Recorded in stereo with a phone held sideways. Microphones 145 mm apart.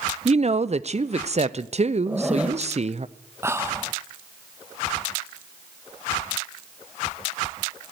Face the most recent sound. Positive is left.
turn(degrees=-20)  # may be behind; listen again after turning